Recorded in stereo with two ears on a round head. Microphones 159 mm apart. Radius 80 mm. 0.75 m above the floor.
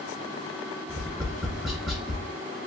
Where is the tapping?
Centre (ahead or behind), 1.1 m.